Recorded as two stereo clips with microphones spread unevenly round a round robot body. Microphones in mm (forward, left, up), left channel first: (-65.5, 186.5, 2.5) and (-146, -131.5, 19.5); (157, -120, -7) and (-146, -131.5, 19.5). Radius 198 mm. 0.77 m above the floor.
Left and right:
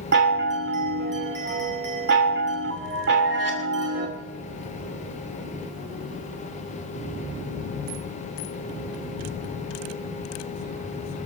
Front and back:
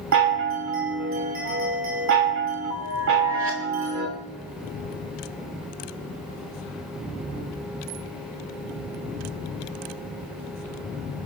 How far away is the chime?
About 3 m.